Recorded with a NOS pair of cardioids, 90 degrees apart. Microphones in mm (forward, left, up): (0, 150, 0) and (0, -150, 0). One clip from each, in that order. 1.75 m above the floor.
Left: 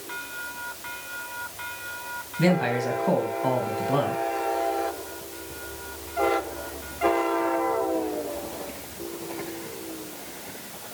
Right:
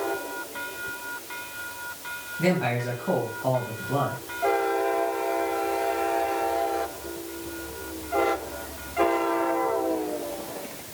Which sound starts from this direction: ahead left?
A man speaking, at 2.4 s.